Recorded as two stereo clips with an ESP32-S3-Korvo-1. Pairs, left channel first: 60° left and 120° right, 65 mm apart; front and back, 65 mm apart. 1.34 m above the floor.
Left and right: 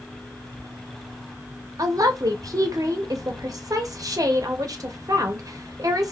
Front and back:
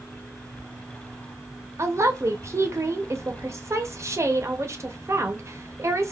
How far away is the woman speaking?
About 0.7 m.